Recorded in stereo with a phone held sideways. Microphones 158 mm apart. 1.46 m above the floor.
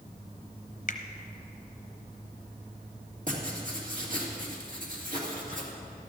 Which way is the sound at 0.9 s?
55° left (ahead or behind).